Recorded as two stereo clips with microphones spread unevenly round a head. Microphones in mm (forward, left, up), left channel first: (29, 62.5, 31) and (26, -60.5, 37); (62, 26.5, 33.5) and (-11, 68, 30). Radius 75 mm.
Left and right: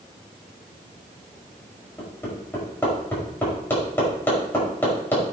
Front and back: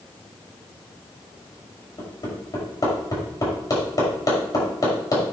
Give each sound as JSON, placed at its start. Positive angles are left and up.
{"t": 2.0, "sound": "hammering", "azimuth_deg": 15, "distance_m": 5.0}